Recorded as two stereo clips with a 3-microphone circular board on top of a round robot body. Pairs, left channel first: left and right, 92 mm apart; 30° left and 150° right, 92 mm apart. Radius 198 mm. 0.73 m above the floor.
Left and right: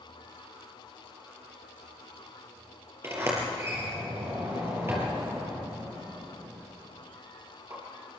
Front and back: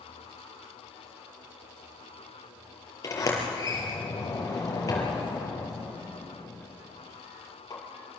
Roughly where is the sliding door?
Ahead right.